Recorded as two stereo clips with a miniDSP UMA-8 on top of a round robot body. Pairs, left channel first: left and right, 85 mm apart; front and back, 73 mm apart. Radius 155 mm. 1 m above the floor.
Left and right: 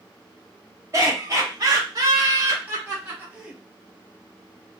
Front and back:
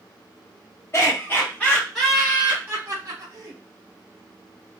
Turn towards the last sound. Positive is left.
turn(degrees=-165)